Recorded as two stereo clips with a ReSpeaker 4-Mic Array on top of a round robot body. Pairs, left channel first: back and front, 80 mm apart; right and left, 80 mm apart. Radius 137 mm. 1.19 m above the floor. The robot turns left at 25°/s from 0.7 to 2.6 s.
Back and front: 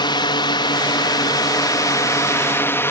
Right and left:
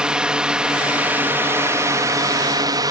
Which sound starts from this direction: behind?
A drone, at 0.0 s.